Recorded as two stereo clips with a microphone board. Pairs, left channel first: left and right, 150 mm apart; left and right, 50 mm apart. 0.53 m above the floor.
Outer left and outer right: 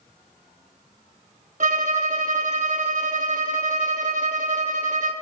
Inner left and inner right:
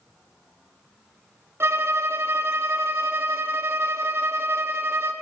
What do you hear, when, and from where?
1.6 s a violin: 55° right (ahead or behind), 0.8 m